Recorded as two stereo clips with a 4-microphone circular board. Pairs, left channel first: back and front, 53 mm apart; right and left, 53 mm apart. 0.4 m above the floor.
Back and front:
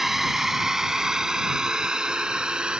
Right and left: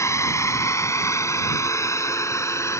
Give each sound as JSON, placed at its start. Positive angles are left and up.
{"t": 0.0, "sound": "a drone", "azimuth_deg": -85}